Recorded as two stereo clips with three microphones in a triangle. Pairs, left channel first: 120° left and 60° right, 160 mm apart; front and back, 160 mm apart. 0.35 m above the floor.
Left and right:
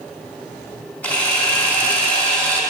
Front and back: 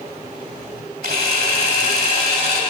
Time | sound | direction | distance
1.0 | a camera shutter | 160° right | 0.9 m